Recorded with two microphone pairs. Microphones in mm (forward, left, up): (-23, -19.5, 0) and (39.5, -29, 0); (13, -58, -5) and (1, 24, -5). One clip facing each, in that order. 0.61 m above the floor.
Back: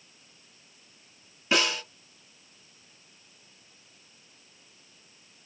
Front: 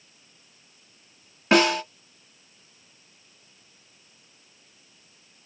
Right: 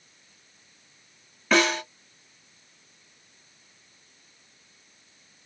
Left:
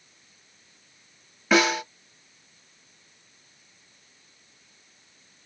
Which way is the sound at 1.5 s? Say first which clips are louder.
Front 7 dB, left 1 dB; 15° left.